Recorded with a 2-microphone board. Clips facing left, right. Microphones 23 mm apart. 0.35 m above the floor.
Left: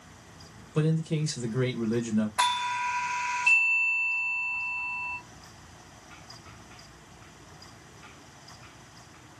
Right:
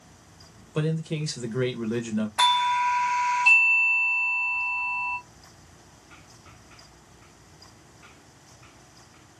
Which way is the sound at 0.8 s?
20° right (ahead or behind).